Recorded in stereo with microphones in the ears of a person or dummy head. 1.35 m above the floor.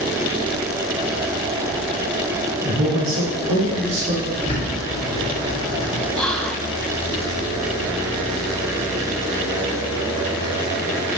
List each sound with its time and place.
2.6 s a man speaking: 85° right, 3 m; by 4.2 s 80° right, 4 m
4.3 s a bird: 45° left (ahead or behind), 1.6 m
6.1 s whispering: 5° left (ahead or behind), 0.6 m